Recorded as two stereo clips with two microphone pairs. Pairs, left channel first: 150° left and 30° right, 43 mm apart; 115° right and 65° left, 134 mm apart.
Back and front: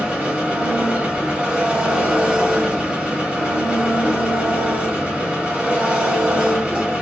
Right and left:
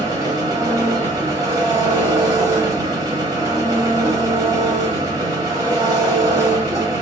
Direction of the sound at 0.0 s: 20° left.